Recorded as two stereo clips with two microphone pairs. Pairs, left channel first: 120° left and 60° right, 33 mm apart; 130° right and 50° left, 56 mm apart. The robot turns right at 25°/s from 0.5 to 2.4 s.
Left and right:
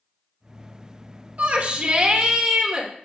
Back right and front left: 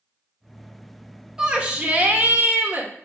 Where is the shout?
25° right, 1.6 m; by 2.9 s 5° left, 1.6 m.